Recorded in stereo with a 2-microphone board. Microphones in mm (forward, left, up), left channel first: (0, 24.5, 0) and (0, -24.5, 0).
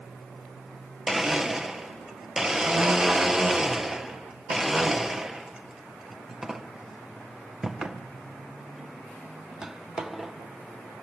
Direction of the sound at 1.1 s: 10° right (ahead or behind).